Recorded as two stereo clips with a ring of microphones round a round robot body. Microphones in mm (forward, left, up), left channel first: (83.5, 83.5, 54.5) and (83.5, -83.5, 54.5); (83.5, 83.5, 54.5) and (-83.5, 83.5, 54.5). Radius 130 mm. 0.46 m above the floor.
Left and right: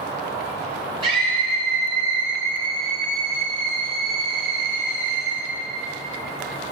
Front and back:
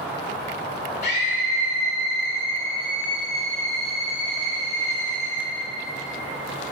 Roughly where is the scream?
Ahead right.